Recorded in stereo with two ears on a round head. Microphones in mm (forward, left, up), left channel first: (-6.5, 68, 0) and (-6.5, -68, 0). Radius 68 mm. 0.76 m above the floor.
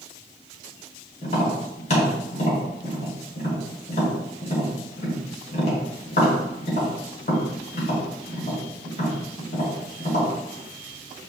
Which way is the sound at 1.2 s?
55° left (ahead or behind).